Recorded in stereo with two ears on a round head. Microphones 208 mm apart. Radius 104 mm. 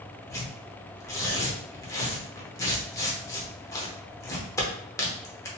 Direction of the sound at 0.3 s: 15° left (ahead or behind).